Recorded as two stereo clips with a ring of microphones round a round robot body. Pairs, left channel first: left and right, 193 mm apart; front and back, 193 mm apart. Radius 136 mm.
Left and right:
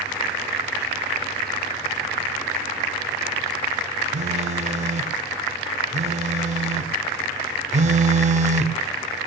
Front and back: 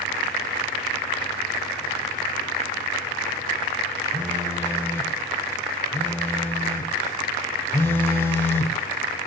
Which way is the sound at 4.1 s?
70° right.